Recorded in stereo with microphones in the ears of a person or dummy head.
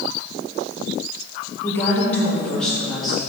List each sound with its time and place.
1.6 s a woman speaking: 15° left (ahead or behind), 1.3 m; by 3.2 s centre (ahead or behind), 2.5 m